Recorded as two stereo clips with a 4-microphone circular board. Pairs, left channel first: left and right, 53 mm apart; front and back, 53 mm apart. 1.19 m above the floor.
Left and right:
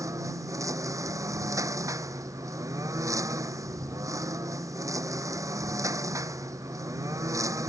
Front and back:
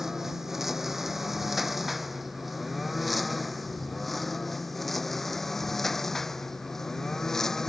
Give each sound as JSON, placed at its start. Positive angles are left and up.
{"t": 0.0, "sound": "a lawn mower", "azimuth_deg": -95}